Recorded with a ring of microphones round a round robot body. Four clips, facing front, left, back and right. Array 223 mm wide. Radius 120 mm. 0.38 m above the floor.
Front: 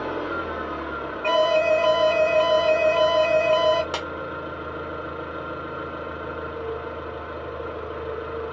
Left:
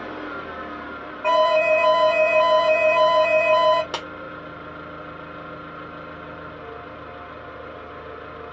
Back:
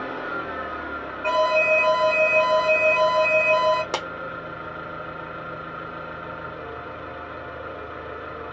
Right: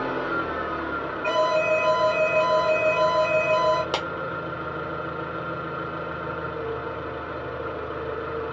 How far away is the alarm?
About 0.9 m.